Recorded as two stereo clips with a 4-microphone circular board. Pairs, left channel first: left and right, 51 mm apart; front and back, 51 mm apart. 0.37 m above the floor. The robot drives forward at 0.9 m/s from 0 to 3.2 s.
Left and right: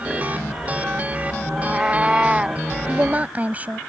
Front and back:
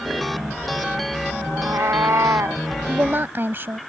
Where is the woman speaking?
140° right; by 3.8 s 145° right.